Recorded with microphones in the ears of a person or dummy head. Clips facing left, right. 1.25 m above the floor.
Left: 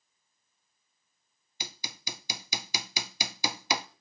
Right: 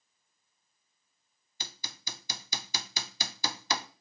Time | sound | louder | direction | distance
1.6 | hammering | left 4 dB | 10° left (ahead or behind) | 0.5 m